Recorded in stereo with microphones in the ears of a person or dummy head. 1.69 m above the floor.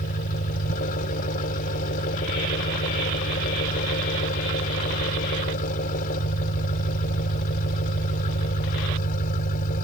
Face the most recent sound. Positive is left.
turn(degrees=45)  # may be behind; listen again after turning